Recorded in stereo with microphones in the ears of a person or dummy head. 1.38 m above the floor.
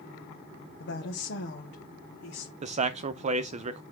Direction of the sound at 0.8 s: 60° left (ahead or behind).